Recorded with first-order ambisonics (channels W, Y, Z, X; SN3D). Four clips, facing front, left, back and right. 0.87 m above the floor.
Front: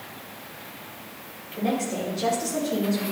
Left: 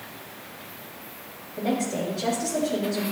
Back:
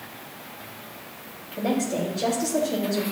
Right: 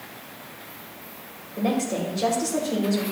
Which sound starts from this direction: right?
A woman speaking, at 1.6 s.